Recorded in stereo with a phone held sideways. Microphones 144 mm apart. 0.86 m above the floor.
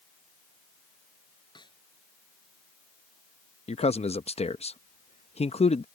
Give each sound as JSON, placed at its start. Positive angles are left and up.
{"t": 1.6, "sound": "a snare drum", "side_deg": 30}
{"t": 3.7, "sound": "a man speaking", "side_deg": 45}